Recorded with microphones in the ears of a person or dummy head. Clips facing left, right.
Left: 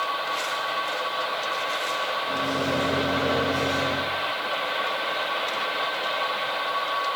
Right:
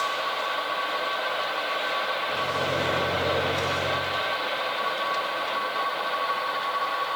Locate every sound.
2.3 s a microwave: 40° left (ahead or behind), 1.9 m